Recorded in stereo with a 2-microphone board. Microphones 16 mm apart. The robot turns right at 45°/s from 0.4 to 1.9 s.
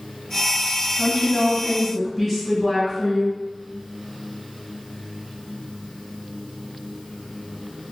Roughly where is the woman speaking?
Behind.